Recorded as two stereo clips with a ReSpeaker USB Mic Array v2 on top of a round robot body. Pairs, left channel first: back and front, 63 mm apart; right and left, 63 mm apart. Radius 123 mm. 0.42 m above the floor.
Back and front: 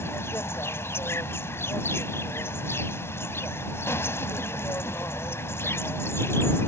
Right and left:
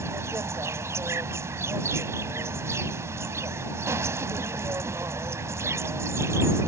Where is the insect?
135° left.